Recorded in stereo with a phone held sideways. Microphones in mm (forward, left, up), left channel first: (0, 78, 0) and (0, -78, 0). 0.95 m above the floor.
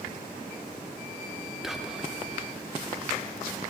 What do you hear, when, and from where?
1.6 s whispering: 5° right (ahead or behind), 0.7 m